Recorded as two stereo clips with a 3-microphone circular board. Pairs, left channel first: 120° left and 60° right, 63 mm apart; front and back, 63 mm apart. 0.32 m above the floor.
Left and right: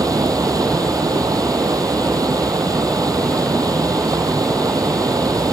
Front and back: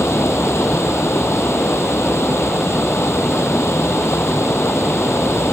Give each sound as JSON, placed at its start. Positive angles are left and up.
{"t": 0.0, "sound": "running water", "azimuth_deg": -45}